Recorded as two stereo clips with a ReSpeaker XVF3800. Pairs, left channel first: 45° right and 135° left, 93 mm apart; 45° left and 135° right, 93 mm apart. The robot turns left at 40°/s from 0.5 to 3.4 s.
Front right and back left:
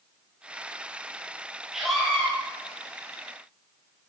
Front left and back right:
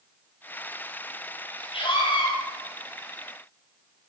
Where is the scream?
50° left, 4.5 m; by 2.3 s 30° left, 4.5 m.